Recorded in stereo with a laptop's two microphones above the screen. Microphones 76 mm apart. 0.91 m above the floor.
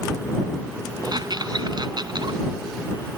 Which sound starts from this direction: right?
A squeak, at 1.0 s.